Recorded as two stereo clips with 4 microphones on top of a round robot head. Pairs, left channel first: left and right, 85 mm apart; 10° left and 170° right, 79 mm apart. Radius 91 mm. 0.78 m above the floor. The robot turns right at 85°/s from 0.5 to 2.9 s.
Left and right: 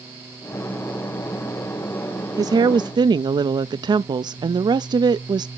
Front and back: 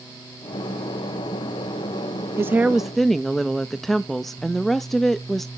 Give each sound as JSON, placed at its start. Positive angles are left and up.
{"t": 2.4, "sound": "a woman speaking", "azimuth_deg": -120, "distance_m": 0.5}